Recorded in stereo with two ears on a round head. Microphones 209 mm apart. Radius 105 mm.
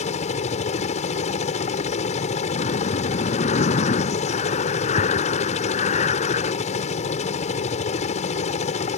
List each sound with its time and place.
0.0 s a helicopter: 30° left (ahead or behind)
2.5 s breathing: 30° left (ahead or behind)